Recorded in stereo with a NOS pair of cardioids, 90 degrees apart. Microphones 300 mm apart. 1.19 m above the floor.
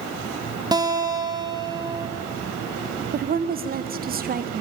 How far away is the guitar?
About 0.9 m.